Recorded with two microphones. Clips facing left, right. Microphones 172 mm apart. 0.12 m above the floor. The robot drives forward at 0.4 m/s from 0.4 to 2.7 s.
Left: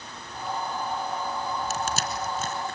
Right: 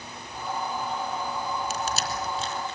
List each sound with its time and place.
1.7 s crushing: 45° left (ahead or behind), 3 m; by 2.8 s 50° left (ahead or behind), 3 m